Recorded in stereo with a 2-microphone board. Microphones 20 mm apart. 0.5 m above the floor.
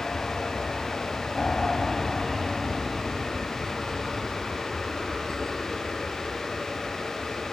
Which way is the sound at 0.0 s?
45° left (ahead or behind).